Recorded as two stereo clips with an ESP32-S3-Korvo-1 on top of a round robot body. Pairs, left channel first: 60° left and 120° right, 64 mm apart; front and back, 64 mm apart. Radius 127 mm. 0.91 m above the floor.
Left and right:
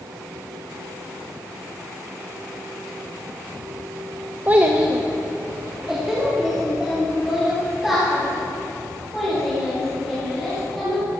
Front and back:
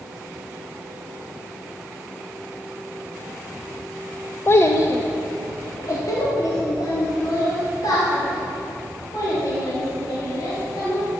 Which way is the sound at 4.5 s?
55° right.